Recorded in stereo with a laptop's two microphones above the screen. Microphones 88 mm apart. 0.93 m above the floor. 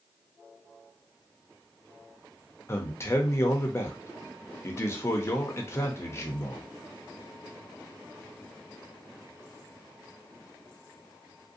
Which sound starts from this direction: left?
A man speaking, at 2.7 s.